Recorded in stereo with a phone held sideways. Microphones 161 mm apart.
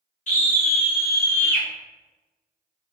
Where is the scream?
50° left (ahead or behind), 1.3 m; by 1.7 s 10° left (ahead or behind), 1.1 m.